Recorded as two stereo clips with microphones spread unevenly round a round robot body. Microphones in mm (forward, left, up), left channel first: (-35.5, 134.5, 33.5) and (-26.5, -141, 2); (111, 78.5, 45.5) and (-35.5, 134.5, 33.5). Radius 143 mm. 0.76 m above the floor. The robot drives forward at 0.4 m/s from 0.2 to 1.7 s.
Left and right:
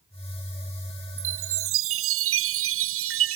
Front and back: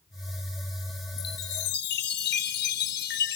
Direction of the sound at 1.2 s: 40° right.